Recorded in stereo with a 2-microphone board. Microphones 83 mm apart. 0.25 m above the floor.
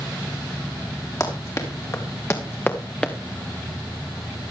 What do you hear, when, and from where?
1.2 s running footsteps: 45° left (ahead or behind), 4 m; by 3.1 s 10° left (ahead or behind), 1.6 m